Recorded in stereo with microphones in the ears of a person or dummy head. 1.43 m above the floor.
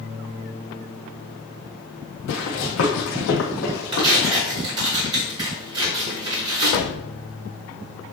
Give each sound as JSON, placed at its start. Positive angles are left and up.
{"t": 2.3, "sound": "running footsteps", "side_deg": 55, "distance_m": 3.0}
{"t": 3.9, "sound": "tearing paper", "side_deg": -25, "distance_m": 4.5}
{"t": 6.6, "sound": "a door slam", "side_deg": 60, "distance_m": 1.2}